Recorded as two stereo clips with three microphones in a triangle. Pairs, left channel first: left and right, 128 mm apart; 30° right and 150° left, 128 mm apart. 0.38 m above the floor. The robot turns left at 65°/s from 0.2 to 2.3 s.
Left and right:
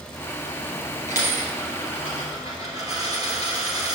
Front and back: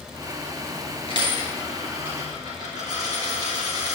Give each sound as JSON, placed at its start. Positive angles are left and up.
{"t": 1.1, "sound": "a dropped coin", "azimuth_deg": -70, "distance_m": 1.9}